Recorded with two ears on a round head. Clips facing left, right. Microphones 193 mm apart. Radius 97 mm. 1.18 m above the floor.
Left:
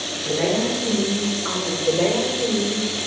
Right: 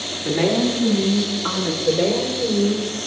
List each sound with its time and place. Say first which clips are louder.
0.2 s a woman speaking: right 3 dB; 80° right, 3 m; by 1.7 s 70° right (ahead or behind), 1.7 m
1.8 s a woman speaking: even; 20° right (ahead or behind), 5 m